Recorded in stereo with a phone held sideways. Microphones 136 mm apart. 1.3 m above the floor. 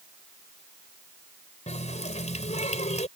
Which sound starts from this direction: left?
A running tap, at 1.7 s.